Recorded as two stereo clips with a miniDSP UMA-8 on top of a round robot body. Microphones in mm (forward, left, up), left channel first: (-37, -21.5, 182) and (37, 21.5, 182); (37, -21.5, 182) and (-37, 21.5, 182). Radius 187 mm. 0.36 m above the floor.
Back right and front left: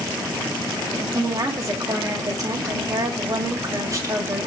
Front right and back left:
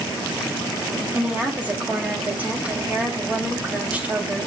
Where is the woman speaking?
80° left, 2.5 m.